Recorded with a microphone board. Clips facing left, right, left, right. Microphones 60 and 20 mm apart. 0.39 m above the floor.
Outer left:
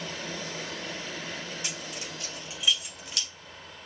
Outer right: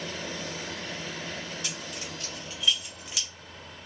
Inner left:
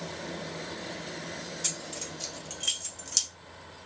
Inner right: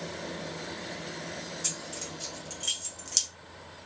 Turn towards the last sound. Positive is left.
turn(degrees=-10)  # may be behind; listen again after turning